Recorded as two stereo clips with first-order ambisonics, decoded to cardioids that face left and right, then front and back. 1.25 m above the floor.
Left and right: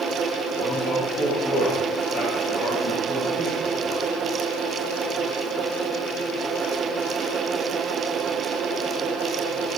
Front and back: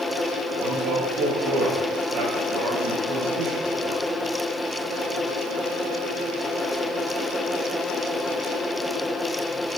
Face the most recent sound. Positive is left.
turn(degrees=145)